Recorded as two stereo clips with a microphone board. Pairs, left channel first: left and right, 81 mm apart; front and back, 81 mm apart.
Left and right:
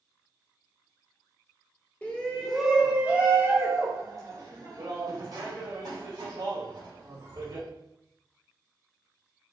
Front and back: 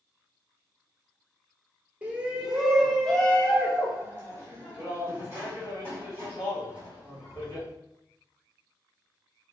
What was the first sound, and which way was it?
A shout, 135° left.